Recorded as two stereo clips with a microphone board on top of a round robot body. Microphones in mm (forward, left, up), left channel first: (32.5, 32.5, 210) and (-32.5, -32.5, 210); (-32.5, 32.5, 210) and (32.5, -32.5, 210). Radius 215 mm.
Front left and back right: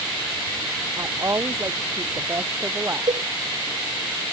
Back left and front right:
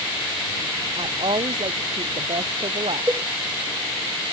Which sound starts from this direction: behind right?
A cowbell, at 3.1 s.